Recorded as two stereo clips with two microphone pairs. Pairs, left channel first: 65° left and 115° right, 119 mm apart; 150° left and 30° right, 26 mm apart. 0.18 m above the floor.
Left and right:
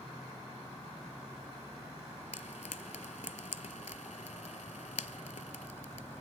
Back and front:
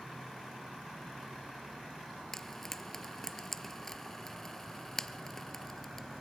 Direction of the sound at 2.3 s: 70° left.